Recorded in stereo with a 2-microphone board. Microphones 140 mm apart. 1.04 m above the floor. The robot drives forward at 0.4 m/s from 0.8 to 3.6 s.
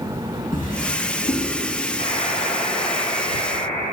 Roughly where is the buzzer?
Left.